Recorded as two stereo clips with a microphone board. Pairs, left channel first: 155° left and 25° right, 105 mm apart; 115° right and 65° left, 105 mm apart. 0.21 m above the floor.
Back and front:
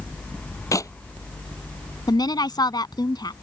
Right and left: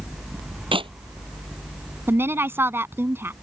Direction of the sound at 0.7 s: 100° left.